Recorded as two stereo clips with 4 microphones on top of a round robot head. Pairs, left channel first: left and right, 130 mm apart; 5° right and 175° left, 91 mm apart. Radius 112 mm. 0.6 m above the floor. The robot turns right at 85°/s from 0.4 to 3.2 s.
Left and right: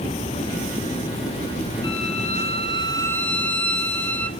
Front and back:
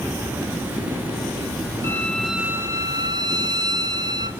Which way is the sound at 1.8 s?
50° left.